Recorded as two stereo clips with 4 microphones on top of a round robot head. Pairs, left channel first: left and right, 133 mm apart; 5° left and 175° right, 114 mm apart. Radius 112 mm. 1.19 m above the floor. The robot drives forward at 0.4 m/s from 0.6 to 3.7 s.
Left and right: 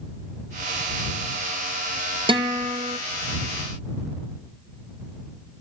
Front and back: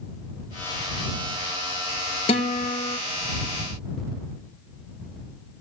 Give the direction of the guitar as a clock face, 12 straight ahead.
1 o'clock.